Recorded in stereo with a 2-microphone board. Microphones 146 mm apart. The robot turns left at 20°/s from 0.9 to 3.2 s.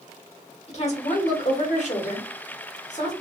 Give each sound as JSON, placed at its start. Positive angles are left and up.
{"t": 0.7, "sound": "a woman speaking", "azimuth_deg": 115, "distance_m": 1.3}